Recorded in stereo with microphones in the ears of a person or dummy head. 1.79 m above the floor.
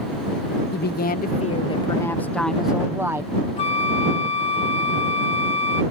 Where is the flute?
30° left (ahead or behind).